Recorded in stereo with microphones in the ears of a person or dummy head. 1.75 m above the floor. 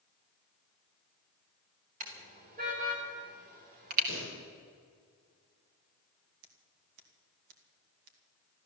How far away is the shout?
No shout in this recording.